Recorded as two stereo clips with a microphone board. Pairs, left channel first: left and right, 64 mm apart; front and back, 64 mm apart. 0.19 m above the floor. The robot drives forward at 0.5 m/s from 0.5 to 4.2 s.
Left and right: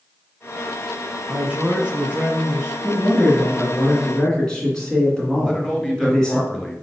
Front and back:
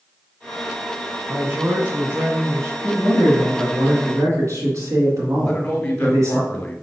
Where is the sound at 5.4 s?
55° left, 1.7 m.